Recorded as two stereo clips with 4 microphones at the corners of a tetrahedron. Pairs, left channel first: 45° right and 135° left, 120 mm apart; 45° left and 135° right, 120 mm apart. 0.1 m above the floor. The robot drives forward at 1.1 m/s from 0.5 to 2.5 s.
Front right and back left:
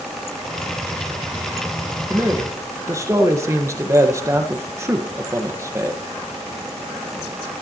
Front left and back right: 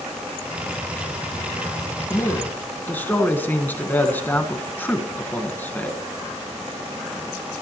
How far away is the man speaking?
About 1.5 m.